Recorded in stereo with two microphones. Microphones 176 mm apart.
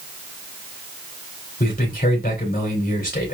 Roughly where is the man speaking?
Left.